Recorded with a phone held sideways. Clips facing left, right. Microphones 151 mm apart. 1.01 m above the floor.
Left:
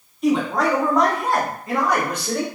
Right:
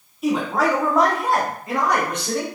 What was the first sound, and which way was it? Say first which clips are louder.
A man speaking: left 1 dB; 5° right (ahead or behind).